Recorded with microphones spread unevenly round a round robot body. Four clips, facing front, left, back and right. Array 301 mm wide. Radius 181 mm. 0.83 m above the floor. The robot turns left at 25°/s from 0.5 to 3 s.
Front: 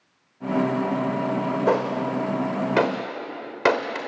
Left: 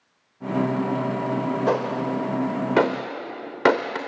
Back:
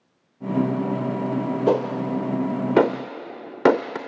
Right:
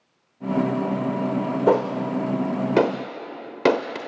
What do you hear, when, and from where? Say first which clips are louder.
1.7 s a gunshot: right 6 dB, back 2 dB; 140° right, 0.6 m; by 4.0 s 175° right, 0.6 m